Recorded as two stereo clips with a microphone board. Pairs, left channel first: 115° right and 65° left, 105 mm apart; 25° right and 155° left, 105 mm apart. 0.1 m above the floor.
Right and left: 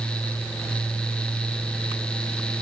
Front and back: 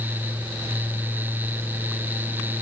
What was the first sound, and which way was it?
Only background noise.